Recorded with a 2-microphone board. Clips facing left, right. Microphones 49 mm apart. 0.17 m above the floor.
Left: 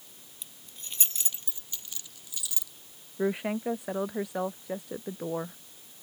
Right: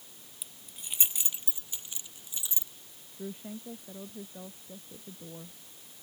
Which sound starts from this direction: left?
A woman speaking, at 3.2 s.